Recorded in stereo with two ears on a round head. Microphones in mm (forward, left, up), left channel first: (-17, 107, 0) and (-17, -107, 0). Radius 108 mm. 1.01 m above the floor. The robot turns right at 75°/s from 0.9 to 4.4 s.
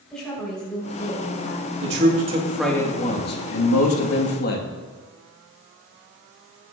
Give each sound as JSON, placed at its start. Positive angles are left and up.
{"t": 0.1, "sound": "a woman speaking", "azimuth_deg": 5, "distance_m": 4.5}
{"t": 1.8, "sound": "a man speaking", "azimuth_deg": -60, "distance_m": 1.7}